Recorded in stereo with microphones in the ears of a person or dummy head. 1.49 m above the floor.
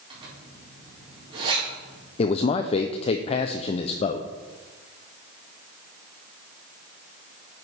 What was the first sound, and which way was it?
A zipper, 30° right (ahead or behind).